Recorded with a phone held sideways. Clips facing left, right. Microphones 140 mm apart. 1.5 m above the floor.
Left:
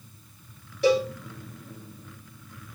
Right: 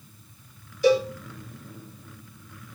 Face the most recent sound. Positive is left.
turn(degrees=70)  # may be behind; listen again after turning